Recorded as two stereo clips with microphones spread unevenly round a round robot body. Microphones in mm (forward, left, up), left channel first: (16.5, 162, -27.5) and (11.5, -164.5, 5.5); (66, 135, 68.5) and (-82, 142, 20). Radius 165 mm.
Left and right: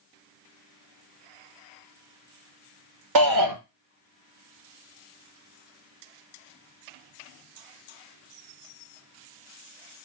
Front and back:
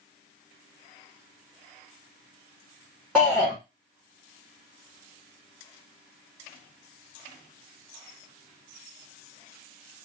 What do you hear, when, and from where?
3.1 s a shout: 110° right, 1.6 m